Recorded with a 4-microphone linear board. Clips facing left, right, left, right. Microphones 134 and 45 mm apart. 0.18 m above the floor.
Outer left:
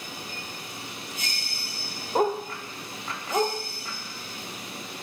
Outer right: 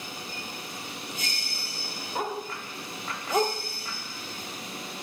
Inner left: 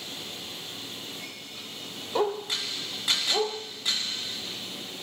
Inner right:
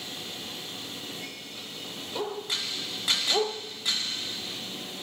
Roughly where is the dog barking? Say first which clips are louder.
Outer left 8 dB, inner left 5 dB; left.